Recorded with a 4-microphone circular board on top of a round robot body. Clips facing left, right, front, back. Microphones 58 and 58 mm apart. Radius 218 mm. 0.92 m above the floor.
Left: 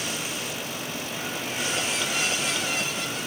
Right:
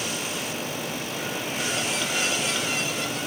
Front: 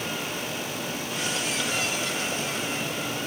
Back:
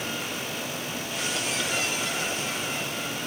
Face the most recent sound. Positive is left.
No sound to turn to.